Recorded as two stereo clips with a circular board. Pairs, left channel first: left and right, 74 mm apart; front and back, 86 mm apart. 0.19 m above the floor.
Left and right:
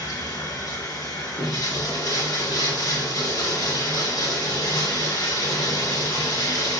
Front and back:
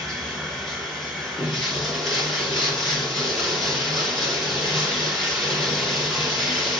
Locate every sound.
0.0 s running water: 90° left, 2 m